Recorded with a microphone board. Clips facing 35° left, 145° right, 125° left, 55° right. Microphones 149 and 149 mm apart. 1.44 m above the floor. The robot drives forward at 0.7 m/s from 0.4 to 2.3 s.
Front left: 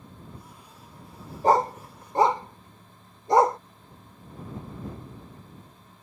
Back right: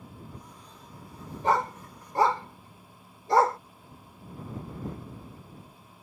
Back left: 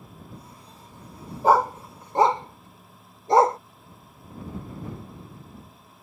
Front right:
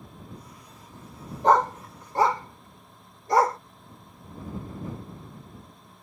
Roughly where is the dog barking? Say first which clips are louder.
Front left 5 dB, back left 1 dB; ahead left.